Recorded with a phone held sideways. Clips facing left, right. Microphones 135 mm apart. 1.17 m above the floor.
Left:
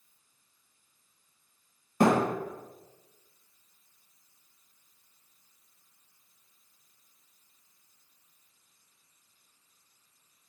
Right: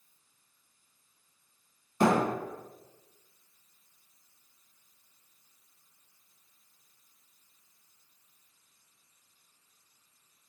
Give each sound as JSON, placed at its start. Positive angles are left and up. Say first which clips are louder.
{"t": 2.0, "sound": "a thud", "louder": "left 2 dB", "side_deg": 45, "distance_m": 1.5}